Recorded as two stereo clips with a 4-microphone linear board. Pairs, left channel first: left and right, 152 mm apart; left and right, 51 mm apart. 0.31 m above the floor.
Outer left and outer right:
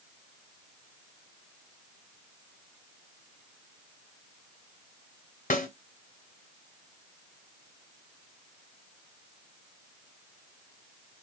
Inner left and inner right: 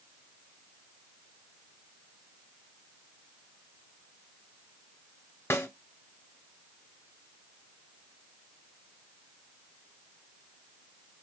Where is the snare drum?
60° left (ahead or behind), 1.9 m.